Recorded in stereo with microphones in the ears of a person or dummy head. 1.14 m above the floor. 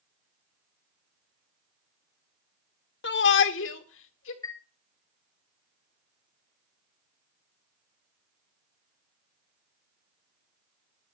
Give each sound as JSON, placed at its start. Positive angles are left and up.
{"t": 3.0, "sound": "a shout", "side_deg": 55, "distance_m": 1.1}
{"t": 4.4, "sound": "a chime", "side_deg": 20, "distance_m": 1.2}